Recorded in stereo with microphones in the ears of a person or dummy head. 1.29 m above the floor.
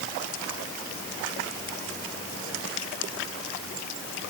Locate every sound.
Only background noise.